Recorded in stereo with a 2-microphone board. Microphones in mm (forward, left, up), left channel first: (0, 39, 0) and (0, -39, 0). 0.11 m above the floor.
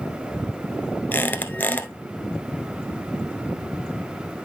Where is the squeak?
25° left (ahead or behind), 1.2 m.